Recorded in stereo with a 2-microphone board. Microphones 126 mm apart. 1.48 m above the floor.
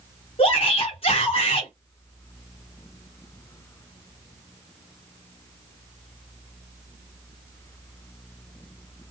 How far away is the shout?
About 1.2 m.